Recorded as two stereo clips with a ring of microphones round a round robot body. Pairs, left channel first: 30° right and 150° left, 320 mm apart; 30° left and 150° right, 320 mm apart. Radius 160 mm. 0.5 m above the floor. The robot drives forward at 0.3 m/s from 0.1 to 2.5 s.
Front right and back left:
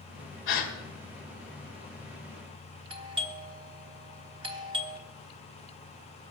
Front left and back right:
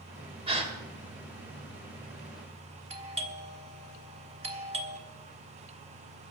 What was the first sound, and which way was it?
A gasp, 80° right.